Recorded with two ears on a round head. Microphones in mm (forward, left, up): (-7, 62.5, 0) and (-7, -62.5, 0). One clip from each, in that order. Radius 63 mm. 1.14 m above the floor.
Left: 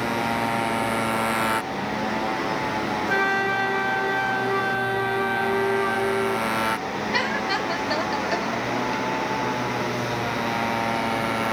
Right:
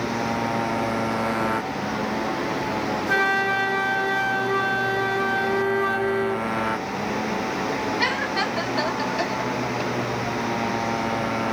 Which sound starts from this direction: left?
A motorcycle, at 0.0 s.